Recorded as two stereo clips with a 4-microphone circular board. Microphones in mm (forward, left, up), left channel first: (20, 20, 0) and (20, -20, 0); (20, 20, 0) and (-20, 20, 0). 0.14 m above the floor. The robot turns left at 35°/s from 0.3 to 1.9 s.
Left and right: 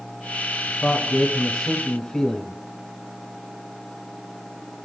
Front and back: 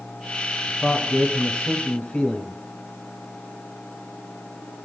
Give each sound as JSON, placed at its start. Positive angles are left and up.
{"t": 0.7, "sound": "a man speaking", "azimuth_deg": 70, "distance_m": 1.3}